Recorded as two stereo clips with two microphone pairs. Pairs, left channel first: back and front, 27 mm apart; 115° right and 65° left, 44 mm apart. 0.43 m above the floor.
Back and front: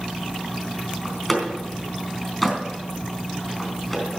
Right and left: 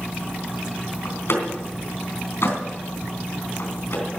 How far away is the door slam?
About 3.5 m.